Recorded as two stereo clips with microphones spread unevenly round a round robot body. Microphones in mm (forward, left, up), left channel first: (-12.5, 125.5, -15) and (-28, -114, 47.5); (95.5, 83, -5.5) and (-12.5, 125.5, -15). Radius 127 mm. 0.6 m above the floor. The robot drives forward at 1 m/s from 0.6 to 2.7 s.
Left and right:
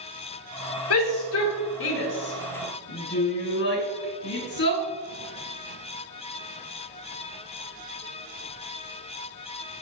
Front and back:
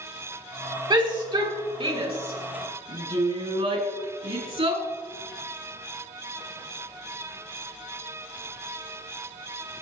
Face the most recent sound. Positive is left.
turn(degrees=130)